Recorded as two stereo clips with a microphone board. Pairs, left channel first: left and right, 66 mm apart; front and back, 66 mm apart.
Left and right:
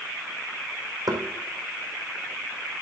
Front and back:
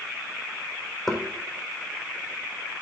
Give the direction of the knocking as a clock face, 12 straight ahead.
3 o'clock.